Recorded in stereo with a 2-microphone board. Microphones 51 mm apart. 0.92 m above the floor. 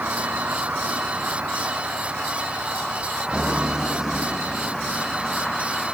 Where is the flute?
I don't hear a flute.